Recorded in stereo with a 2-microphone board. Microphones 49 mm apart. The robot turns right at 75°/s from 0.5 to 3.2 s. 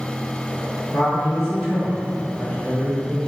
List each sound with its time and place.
0.9 s a man speaking: 15° right, 1.6 m; by 3.3 s 160° left, 1.6 m